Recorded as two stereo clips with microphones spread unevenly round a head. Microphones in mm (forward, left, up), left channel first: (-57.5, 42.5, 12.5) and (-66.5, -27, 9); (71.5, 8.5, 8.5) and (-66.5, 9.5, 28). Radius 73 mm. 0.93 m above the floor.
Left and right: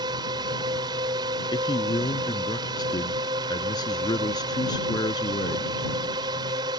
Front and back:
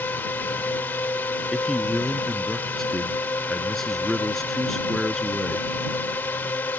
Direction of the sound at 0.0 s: 75° right.